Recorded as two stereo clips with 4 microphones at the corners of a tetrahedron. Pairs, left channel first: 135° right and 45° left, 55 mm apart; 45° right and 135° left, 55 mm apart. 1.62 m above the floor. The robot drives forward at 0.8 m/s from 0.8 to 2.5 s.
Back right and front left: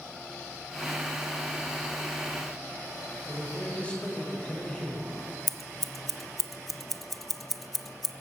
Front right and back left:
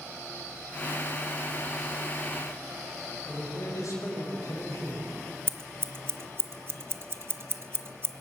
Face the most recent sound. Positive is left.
turn(degrees=140)